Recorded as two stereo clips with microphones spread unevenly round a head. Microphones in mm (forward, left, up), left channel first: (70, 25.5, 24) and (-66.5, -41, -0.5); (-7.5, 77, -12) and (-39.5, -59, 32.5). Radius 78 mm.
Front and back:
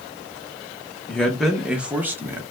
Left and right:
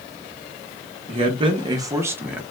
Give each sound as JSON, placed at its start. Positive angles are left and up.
{"t": 1.1, "sound": "a man speaking", "azimuth_deg": -75, "distance_m": 0.8}